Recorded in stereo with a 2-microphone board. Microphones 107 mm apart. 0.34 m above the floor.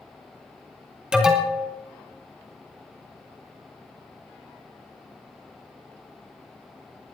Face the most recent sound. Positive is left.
turn(degrees=-10)  # may be behind; listen again after turning